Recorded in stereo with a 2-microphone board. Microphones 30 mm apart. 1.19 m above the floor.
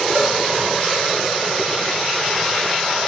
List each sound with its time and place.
0.1 s a cowbell: 65° right (ahead or behind), 3 m